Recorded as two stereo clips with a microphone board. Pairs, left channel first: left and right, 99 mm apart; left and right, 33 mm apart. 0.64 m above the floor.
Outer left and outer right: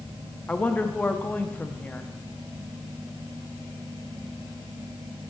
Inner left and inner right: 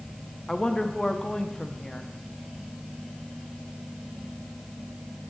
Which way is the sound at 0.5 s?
15° left (ahead or behind).